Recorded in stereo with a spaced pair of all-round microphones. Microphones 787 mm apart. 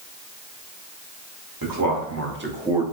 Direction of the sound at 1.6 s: 25° right (ahead or behind).